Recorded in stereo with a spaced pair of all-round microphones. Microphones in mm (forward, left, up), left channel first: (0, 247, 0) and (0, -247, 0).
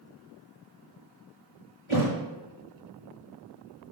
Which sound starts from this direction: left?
A thud, at 1.9 s.